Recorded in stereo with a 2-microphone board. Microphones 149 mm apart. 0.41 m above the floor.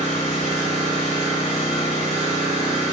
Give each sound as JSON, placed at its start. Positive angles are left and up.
{"t": 0.0, "sound": "an engine running", "side_deg": 45, "distance_m": 1.3}